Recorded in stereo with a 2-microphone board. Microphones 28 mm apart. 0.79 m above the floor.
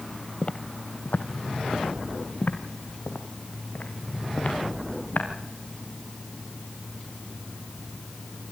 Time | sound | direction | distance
0.4 | footsteps | 35° left (ahead or behind) | 1.3 m